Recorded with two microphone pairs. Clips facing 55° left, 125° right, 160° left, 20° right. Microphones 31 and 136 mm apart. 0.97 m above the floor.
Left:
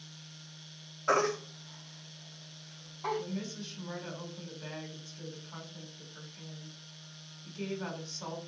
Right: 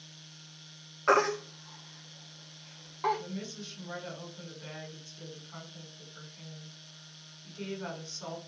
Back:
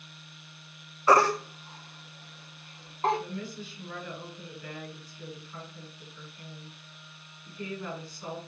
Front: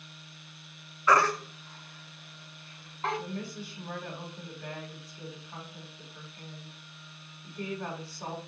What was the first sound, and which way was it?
A baby crying, 145° right.